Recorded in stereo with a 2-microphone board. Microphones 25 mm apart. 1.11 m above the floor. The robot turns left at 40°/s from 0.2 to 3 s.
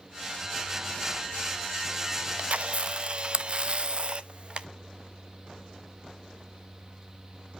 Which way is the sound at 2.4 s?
55° right (ahead or behind).